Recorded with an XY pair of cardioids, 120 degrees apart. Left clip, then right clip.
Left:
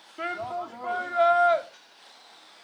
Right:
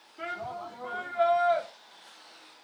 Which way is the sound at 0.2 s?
50° left.